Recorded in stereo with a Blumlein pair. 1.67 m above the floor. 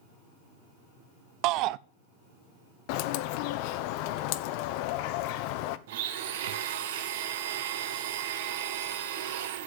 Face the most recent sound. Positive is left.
turn(degrees=-55)